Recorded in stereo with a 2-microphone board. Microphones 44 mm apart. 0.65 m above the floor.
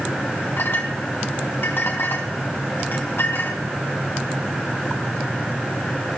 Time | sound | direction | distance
0.6 | a clink | 70° left (ahead or behind) | 3.5 m